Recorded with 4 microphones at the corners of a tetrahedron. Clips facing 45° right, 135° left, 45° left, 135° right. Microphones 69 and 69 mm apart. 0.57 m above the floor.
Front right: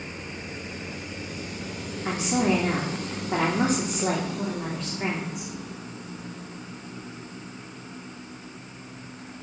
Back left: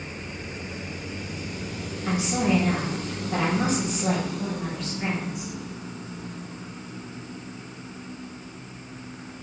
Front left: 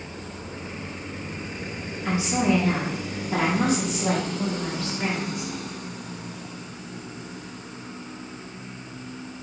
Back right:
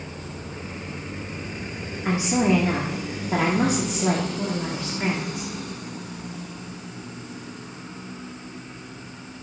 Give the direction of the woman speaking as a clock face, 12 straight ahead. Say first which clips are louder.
Even, back right 2 dB; 3 o'clock.